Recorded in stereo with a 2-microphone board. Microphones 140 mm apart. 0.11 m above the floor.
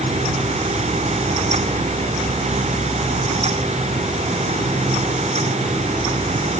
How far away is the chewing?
I don't hear chewing.